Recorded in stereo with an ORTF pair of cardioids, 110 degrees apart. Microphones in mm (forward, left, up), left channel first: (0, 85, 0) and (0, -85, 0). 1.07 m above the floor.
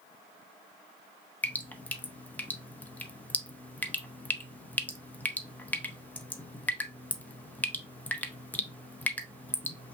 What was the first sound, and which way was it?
Dripping, 10° left.